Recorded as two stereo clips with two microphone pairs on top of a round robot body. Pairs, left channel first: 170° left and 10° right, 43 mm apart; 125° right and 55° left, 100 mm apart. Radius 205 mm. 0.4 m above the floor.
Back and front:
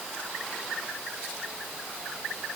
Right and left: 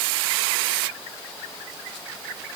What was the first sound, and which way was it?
Only background noise.